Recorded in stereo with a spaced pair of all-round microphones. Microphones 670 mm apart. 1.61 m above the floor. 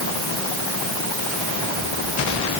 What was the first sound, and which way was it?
Only background noise.